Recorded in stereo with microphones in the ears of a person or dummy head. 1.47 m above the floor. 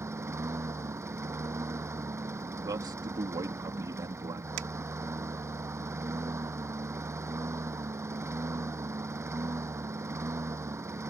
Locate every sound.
0.0 s a lawn mower: 10° right (ahead or behind)
2.6 s a man speaking: 20° right (ahead or behind)
4.6 s a finger snap: 70° right (ahead or behind)